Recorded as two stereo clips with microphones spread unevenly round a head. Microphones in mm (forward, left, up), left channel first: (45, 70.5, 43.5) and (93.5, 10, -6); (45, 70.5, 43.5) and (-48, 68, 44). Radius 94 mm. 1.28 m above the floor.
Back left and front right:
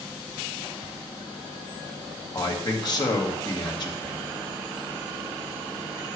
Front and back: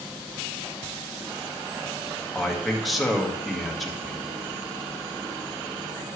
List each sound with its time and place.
2.3 s a man speaking: 90° left, 1.9 m